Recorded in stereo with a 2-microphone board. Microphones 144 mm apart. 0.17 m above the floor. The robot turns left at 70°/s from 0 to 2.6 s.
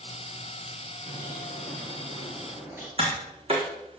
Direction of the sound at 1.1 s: 55° right.